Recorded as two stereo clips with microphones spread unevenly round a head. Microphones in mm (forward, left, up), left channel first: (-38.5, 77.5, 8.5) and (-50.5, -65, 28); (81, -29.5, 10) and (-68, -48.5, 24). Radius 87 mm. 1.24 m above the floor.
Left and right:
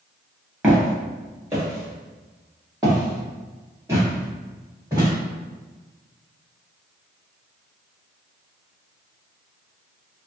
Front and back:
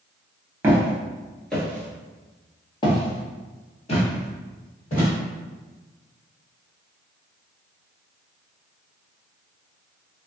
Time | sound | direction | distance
0.6 | footsteps | 130° right | 1.3 m